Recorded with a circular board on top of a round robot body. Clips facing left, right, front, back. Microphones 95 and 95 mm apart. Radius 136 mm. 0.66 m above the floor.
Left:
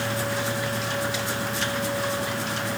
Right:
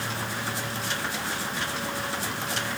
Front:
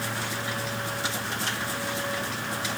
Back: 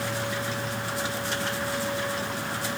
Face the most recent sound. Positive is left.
No sound to turn to.